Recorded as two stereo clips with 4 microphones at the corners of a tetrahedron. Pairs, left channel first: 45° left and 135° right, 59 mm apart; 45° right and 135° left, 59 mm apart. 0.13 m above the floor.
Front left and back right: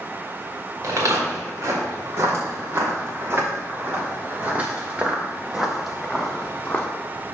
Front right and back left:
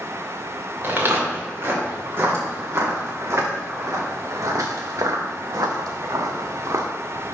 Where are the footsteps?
175° right, 3 m; by 6.9 s 115° left, 1.3 m.